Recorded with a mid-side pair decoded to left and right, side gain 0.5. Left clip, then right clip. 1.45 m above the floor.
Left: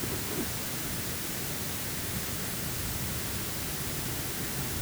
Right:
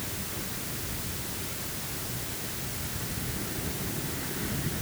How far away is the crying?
I don't hear crying.